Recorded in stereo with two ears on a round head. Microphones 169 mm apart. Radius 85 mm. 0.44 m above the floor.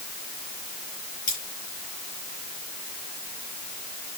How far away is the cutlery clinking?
About 7 m.